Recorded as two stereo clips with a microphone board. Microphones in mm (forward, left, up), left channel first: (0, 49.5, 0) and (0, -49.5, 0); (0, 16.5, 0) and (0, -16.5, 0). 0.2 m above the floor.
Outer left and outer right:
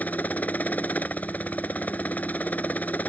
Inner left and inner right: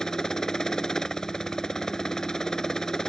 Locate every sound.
0.0 s a helicopter: 15° left (ahead or behind)